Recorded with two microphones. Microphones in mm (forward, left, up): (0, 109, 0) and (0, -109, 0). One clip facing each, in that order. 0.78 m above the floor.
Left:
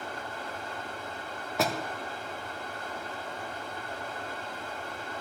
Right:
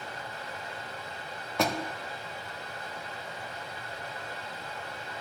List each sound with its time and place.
0.0 s running water: 50° left (ahead or behind), 1.7 m
1.6 s a door slam: centre (ahead or behind), 1.0 m